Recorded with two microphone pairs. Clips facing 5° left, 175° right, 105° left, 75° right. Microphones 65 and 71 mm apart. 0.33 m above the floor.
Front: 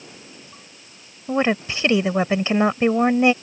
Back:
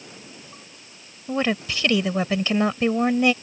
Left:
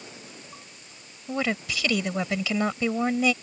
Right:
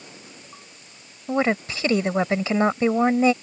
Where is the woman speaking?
45° right.